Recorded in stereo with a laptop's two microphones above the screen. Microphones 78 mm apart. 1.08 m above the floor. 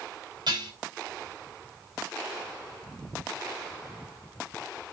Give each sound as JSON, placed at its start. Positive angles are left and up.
{"t": 0.5, "sound": "dishes clattering", "side_deg": -65, "distance_m": 4.5}